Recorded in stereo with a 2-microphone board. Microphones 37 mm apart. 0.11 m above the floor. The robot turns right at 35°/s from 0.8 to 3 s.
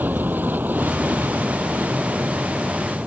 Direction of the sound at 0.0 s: 110° right.